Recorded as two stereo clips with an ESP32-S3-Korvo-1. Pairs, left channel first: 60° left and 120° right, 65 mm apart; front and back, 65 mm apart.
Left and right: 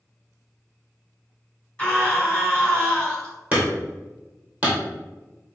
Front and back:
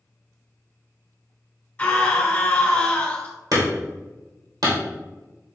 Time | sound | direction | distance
1.8 | a scream | 20° left | 1.4 m
3.5 | hammering | 175° left | 2 m